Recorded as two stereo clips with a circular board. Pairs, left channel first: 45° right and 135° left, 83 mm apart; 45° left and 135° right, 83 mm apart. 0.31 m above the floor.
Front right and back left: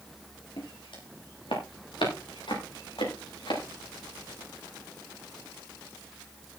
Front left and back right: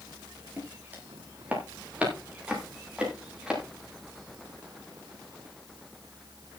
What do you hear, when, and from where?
0.6 s footsteps: 65° right, 9.5 m; by 3.6 s 55° right, 8.5 m